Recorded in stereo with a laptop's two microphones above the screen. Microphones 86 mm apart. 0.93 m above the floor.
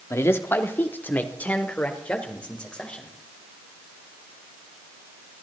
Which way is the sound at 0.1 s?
35° left (ahead or behind).